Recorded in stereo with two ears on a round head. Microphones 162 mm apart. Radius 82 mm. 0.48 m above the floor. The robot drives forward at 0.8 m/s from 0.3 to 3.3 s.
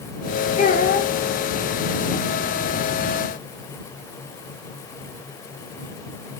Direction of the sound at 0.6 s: 40° left (ahead or behind).